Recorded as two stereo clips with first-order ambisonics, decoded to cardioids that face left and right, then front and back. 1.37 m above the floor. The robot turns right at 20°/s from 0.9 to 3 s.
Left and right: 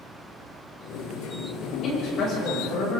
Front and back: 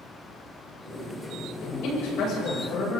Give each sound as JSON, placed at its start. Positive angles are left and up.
{"t": 1.6, "sound": "a man speaking", "azimuth_deg": 30, "distance_m": 7.5}